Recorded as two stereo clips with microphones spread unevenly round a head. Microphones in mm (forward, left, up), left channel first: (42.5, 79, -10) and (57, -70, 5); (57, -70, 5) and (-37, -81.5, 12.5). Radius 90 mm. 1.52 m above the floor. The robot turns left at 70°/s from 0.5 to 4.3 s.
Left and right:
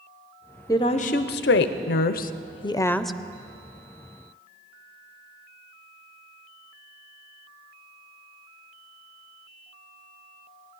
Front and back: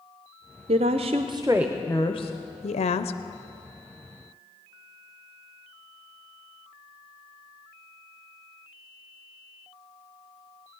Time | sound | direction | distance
0.7 | a woman speaking | 170° left | 0.5 m